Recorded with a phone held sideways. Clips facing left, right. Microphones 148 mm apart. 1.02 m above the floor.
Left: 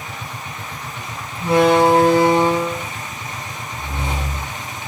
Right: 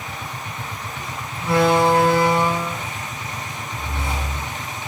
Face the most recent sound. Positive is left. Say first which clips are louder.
# left 3 dB
turn(degrees=20)  # may be behind; listen again after turning